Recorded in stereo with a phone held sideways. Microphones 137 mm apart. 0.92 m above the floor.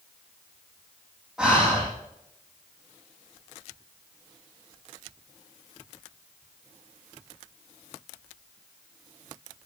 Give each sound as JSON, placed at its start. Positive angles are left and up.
{"t": 1.4, "sound": "breathing", "side_deg": -5, "distance_m": 8.5}